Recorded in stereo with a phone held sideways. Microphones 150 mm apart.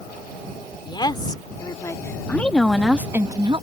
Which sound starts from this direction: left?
A woman speaking, at 0.8 s.